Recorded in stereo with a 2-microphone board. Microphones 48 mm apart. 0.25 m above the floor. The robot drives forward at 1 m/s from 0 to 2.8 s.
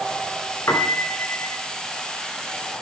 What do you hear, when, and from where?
0.7 s a piano: 75° left (ahead or behind), 1.0 m; by 1.6 s 45° left (ahead or behind), 1.4 m